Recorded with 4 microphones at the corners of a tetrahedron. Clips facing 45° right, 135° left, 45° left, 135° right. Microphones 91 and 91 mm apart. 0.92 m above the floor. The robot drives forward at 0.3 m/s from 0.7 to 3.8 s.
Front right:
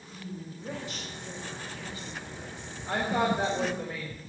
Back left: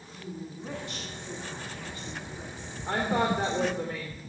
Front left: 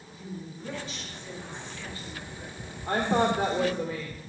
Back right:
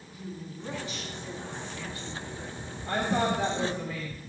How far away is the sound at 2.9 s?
About 3.5 m.